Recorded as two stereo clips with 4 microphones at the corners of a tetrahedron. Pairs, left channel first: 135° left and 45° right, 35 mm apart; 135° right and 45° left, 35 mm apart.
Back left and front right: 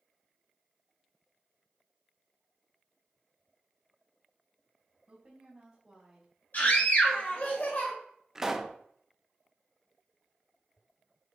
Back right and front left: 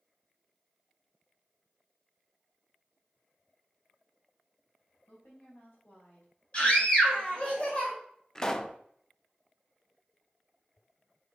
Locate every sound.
5.1 s a woman speaking: 115° right, 3.5 m; by 7.5 s 155° right, 2 m
6.5 s a scream: 165° left, 3 m
8.3 s a pop: 100° right, 0.5 m